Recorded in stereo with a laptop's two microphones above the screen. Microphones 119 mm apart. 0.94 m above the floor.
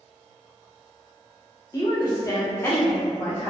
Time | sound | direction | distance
1.7 | a woman speaking | 30° left (ahead or behind) | 0.8 m